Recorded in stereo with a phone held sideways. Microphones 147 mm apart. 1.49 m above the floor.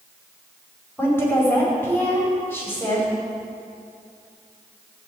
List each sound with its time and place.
1.0 s a woman speaking: 15° left (ahead or behind), 5 m